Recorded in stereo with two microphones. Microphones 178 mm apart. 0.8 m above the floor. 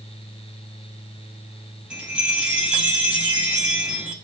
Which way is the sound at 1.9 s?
5° right (ahead or behind).